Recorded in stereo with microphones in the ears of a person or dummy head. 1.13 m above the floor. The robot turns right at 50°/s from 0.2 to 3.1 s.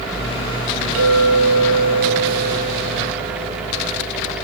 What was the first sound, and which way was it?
A clink, 70° right.